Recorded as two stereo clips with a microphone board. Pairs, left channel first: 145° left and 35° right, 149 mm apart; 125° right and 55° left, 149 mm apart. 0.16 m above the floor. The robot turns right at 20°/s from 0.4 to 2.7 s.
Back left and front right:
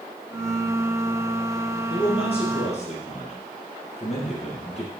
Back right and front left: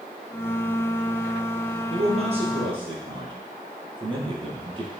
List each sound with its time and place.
1.9 s a man speaking: 90° left, 2.5 m; by 4.9 s 110° left, 2.5 m